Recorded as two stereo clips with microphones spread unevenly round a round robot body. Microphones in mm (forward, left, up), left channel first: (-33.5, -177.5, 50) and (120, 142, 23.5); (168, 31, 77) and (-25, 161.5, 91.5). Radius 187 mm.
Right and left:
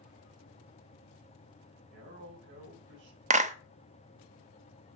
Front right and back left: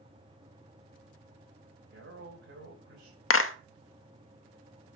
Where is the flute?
I don't hear a flute.